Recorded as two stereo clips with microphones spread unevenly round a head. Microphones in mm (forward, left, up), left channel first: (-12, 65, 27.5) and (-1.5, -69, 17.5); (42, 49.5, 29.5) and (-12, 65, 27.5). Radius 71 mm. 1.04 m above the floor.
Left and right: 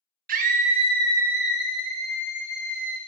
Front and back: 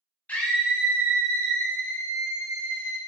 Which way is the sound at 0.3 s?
85° right.